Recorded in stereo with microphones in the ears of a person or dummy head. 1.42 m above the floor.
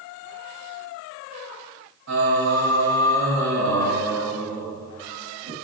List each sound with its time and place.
2.1 s singing: 70° right (ahead or behind), 4.5 m